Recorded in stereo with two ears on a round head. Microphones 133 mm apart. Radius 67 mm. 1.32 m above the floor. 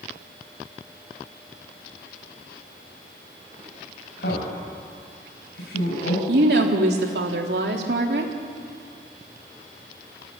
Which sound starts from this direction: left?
A man speaking, at 4.2 s.